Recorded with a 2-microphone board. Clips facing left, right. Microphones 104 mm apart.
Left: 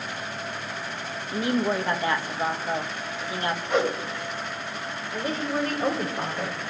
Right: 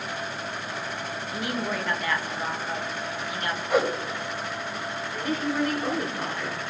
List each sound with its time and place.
1.3 s a woman speaking: 30° left (ahead or behind), 1.7 m
3.7 s a whoosh: 5° right (ahead or behind), 1.4 m
5.1 s a woman speaking: 30° left (ahead or behind), 5.5 m